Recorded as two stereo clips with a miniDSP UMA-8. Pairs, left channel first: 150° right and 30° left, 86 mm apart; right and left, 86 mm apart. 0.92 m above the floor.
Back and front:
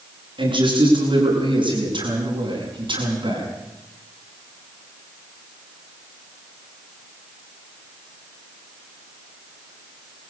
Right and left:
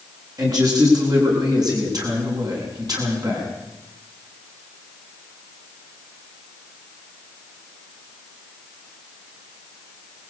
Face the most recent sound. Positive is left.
turn(degrees=50)